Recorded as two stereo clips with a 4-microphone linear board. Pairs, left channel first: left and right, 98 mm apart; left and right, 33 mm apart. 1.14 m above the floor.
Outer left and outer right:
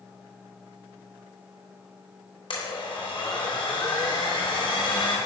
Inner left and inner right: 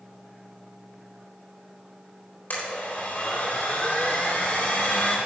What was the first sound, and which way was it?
A blender, 55° left (ahead or behind).